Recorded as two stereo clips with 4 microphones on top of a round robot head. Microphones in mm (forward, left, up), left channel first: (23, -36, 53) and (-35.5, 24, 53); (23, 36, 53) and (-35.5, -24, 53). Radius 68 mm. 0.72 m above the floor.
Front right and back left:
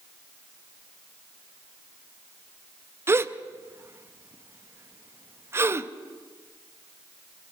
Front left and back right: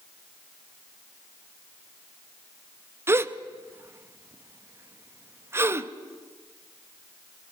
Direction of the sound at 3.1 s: Straight behind.